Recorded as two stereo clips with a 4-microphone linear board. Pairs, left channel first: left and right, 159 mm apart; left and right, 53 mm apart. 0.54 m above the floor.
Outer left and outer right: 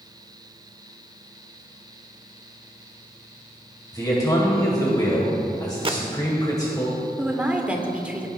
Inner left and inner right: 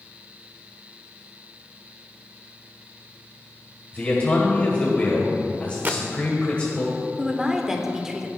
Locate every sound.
3.9 s a man speaking: 25° left (ahead or behind), 1.9 m
5.8 s a gunshot: 35° right (ahead or behind), 0.7 m
7.2 s a woman speaking: 10° right (ahead or behind), 1.3 m